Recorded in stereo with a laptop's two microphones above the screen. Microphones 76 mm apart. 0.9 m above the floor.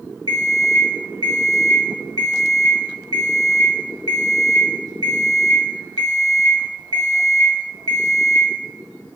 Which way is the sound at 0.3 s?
60° right (ahead or behind).